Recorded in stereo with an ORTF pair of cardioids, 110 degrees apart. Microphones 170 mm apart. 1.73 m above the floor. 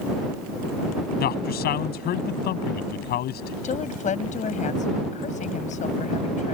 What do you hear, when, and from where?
1.2 s a man speaking: 70° left
3.6 s a woman speaking: 45° left